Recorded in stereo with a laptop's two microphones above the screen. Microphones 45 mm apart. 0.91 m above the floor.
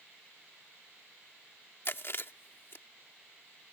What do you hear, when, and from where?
1.9 s chewing: 55° left (ahead or behind)